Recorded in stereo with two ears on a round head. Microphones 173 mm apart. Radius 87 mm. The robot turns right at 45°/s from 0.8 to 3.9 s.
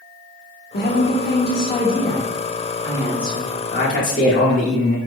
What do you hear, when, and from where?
0.7 s a woman speaking: 105° left, 1.1 m; by 3.5 s 135° right, 1.1 m
3.7 s a man speaking: 45° left (ahead or behind), 1.0 m; by 5.0 s 40° left (ahead or behind), 1.0 m